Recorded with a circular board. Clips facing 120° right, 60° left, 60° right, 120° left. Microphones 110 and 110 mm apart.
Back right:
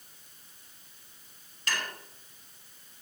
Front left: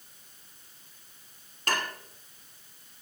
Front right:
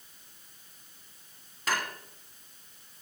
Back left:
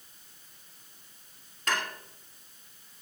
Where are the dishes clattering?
25° left, 1.4 m.